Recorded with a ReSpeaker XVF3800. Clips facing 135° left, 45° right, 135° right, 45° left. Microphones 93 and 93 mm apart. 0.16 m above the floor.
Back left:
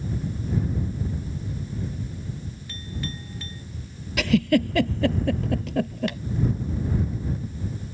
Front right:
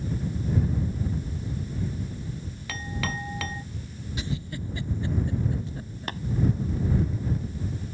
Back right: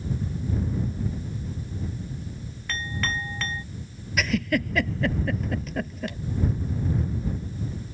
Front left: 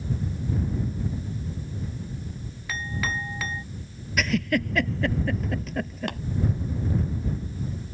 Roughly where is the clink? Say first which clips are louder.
Front right 4 dB, even; ahead right.